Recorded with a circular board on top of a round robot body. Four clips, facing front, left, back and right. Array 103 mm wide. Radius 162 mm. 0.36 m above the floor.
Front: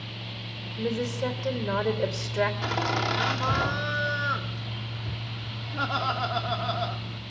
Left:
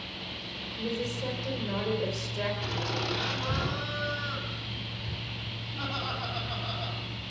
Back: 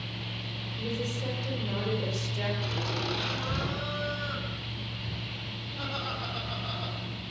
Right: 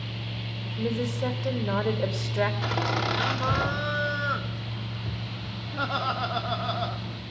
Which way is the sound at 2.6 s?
50° right.